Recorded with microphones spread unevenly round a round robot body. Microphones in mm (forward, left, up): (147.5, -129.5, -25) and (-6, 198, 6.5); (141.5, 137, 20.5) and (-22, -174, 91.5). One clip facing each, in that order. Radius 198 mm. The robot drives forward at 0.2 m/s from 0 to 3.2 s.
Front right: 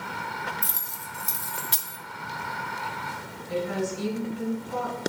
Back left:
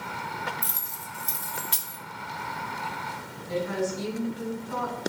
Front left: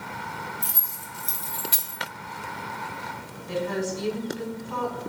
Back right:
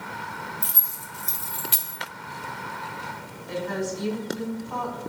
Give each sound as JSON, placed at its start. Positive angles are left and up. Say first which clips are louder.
{"t": 0.6, "sound": "keys jangling", "louder": "even, front left 1 dB", "azimuth_deg": -50, "distance_m": 0.9}
{"t": 3.5, "sound": "a woman speaking", "louder": "even, front left 1 dB", "azimuth_deg": 65, "distance_m": 1.6}